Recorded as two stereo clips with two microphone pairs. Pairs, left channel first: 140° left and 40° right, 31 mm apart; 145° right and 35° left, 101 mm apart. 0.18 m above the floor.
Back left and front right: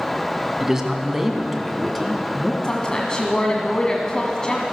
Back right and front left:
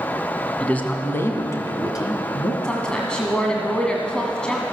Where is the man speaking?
85° right, 1.5 m; by 2.5 s 145° right, 2 m.